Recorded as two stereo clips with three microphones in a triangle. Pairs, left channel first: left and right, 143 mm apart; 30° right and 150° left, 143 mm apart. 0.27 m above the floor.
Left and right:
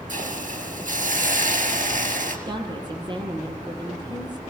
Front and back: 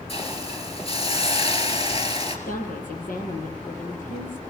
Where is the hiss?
75° right, 5 m.